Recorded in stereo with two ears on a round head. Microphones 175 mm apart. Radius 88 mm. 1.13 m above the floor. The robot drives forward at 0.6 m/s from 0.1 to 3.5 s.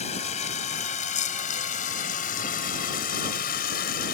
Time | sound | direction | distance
0.0 | running water | 35° left (ahead or behind) | ?